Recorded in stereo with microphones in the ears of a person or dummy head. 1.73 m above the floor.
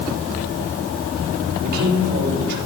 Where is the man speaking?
50° right (ahead or behind), 4.5 m.